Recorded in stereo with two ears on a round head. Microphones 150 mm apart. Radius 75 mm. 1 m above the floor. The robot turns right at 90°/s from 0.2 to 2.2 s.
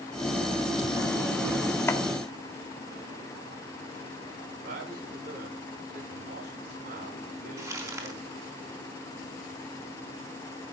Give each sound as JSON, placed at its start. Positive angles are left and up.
{"t": 1.9, "sound": "chopping", "side_deg": 15, "distance_m": 1.6}
{"t": 4.6, "sound": "a man speaking", "side_deg": -55, "distance_m": 9.0}
{"t": 7.6, "sound": "crumpling", "side_deg": -20, "distance_m": 4.0}